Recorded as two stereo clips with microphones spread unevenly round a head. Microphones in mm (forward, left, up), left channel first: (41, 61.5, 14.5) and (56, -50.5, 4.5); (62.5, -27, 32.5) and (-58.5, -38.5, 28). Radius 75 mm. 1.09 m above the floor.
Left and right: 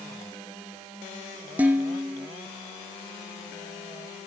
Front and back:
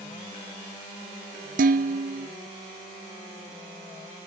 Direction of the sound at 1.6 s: 165° right.